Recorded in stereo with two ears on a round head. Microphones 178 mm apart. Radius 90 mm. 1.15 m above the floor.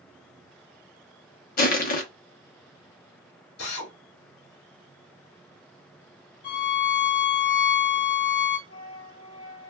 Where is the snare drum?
No snare drum in this recording.